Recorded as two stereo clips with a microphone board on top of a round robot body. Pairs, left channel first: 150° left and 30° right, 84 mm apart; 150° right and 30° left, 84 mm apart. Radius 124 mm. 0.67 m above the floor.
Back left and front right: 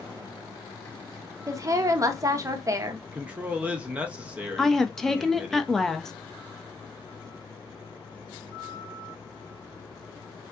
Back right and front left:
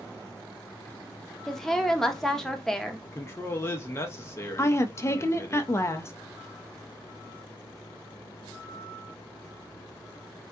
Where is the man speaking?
100° right, 0.6 m.